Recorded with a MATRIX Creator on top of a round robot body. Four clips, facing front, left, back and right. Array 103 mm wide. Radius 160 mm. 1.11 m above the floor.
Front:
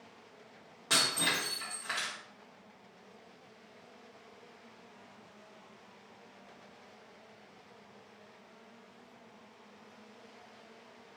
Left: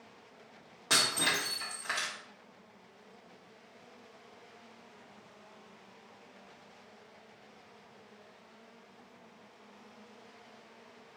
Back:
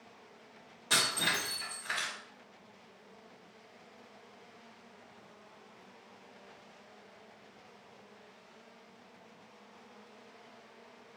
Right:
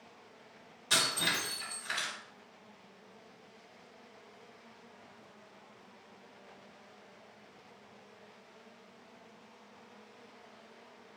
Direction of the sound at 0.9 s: 70° left.